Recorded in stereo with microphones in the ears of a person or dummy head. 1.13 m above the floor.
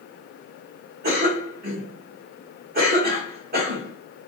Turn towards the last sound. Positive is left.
turn(degrees=-50)  # may be behind; listen again after turning